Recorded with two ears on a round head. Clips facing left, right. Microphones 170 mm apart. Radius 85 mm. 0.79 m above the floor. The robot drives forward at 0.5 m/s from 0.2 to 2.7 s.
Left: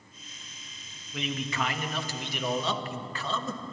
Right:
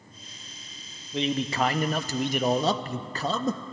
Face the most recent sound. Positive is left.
turn(degrees=-35)  # may be behind; listen again after turning